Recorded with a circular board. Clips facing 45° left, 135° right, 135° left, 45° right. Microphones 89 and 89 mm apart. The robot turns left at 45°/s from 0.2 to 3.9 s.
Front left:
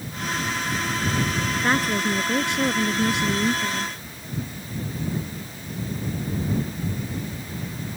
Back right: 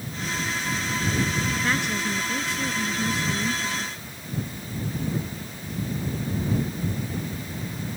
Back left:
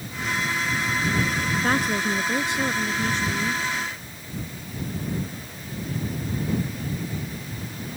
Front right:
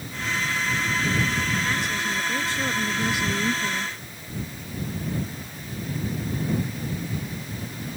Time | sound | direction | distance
1.6 | a woman speaking | 105° left | ?